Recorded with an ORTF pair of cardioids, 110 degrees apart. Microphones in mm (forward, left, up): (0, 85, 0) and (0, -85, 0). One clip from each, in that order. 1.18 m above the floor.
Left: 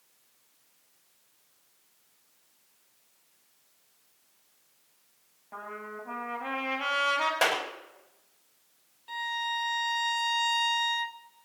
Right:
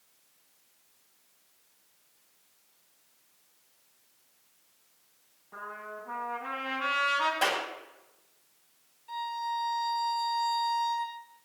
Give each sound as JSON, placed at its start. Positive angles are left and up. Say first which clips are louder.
{"t": 5.5, "sound": "a trumpet", "louder": "left 1 dB", "azimuth_deg": 60, "distance_m": 8.0}
{"t": 7.4, "sound": "a clap", "louder": "left 2 dB", "azimuth_deg": 65, "distance_m": 7.0}
{"t": 9.1, "sound": "a violin", "louder": "left 2 dB", "azimuth_deg": 65, "distance_m": 1.9}